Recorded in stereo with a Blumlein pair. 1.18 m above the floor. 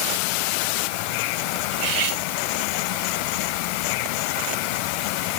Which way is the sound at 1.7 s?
40° right.